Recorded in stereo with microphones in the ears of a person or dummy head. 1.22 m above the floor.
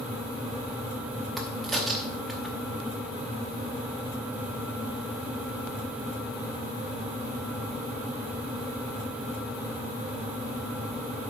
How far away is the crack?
About 0.8 m.